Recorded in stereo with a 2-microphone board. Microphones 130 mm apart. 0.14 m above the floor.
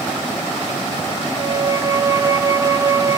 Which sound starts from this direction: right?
A violin, at 1.3 s.